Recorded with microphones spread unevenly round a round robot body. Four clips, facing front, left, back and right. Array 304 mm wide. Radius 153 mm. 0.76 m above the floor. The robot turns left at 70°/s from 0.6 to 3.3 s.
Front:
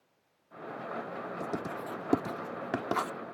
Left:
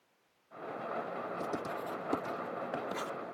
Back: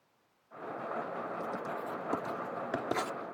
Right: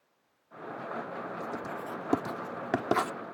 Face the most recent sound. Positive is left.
turn(degrees=-115)